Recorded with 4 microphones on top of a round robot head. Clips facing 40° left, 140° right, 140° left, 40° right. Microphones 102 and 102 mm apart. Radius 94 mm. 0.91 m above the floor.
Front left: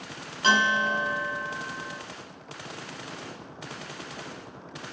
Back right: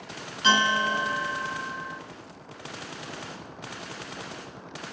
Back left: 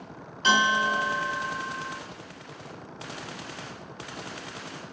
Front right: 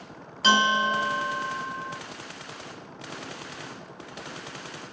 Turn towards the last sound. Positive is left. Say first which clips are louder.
# even, front right 1 dB
turn(degrees=-15)